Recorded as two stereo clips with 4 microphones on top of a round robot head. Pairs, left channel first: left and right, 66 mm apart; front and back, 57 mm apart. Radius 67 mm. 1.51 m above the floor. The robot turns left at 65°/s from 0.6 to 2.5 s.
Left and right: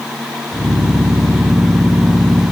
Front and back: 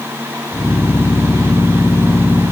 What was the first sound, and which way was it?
Only background noise.